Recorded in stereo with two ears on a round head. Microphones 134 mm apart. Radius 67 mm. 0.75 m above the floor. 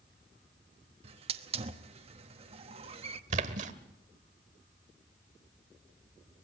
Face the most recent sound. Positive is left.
turn(degrees=-50)  # may be behind; listen again after turning